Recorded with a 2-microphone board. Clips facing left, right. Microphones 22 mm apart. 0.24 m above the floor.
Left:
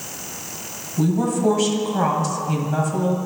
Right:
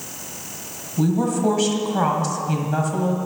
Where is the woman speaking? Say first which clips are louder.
Even; 10° right (ahead or behind), 1.1 m.